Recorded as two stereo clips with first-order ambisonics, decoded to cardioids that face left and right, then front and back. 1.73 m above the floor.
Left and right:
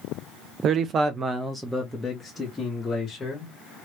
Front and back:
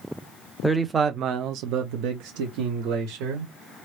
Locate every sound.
0.6 s a man speaking: 80° right, 0.5 m; by 3.5 s 165° left, 1.7 m